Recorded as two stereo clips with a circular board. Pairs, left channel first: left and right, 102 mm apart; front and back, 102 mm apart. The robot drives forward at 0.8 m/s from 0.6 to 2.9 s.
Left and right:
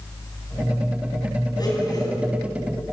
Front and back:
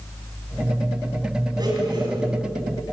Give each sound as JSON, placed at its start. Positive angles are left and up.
{"t": 1.6, "sound": "a blender", "azimuth_deg": 135, "distance_m": 4.0}